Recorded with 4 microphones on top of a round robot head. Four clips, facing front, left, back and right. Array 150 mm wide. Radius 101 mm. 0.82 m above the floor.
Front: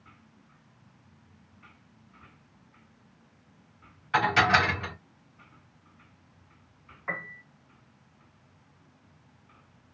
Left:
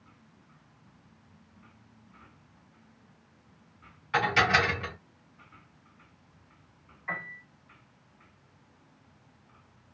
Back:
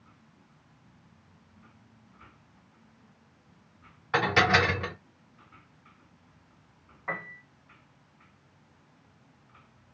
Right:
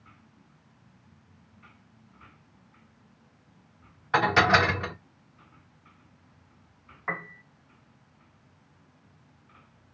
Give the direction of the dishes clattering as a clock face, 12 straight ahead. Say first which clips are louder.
Right 4 dB, front 1 dB; 4 o'clock.